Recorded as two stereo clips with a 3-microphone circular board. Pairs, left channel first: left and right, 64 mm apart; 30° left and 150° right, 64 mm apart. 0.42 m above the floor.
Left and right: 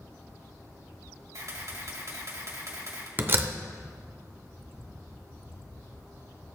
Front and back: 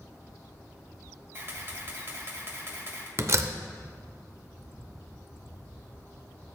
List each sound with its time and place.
1.3 s a camera shutter: 105° right, 1.8 m
3.2 s a door slam: 130° right, 0.6 m